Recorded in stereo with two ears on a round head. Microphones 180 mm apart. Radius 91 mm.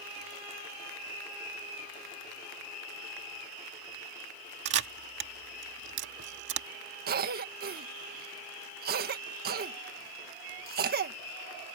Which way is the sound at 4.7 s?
65° right (ahead or behind).